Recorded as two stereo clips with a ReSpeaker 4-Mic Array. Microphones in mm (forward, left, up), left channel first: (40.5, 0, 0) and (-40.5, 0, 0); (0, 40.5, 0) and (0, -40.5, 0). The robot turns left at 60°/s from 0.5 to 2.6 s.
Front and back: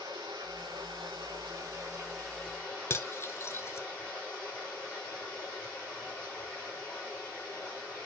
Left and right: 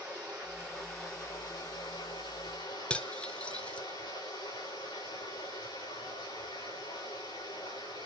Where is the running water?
160° right, 7.5 m; by 8.1 s 70° left, 7.5 m.